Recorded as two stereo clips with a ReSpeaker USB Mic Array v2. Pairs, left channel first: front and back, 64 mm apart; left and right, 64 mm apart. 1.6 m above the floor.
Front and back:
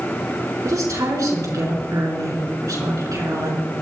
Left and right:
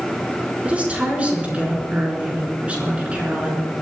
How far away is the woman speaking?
About 4 m.